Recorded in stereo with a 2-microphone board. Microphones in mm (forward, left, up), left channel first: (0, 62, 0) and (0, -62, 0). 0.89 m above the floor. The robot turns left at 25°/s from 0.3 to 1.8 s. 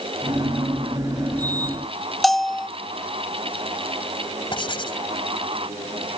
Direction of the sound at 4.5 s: 40° left (ahead or behind).